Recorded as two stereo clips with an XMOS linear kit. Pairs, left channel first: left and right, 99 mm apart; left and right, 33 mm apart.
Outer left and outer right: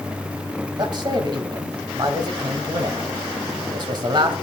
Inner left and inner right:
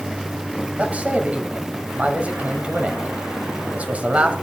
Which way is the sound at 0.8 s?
50° right (ahead or behind).